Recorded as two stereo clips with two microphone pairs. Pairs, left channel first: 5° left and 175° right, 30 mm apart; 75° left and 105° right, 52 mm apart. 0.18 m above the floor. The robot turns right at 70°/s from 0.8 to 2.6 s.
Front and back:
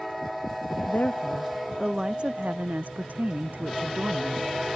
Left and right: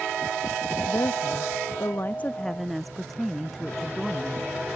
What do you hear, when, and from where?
0.9 s a woman speaking: 40° left; by 4.5 s 160° left